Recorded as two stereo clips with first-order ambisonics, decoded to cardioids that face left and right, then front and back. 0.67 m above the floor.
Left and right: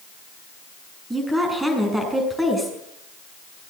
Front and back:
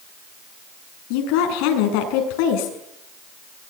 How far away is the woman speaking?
About 6.5 m.